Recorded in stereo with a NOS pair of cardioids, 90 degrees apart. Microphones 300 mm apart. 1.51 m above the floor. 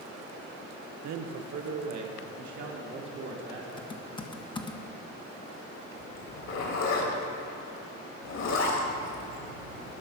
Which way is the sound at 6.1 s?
60° left.